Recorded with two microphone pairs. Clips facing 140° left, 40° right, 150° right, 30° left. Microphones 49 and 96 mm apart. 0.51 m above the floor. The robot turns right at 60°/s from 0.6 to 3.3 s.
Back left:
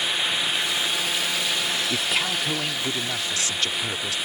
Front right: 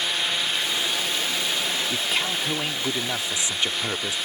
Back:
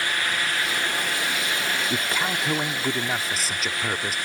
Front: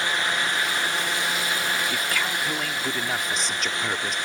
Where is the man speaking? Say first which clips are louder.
Back left 1 dB, back 1 dB; 155° right; by 4.2 s 70° right.